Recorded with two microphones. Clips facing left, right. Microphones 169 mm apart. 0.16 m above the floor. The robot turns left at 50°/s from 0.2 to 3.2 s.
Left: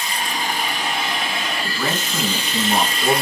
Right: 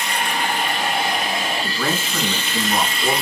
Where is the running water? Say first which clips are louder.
Right 2 dB; 85° right, 1.5 m; by 3.2 s 125° left, 1.5 m.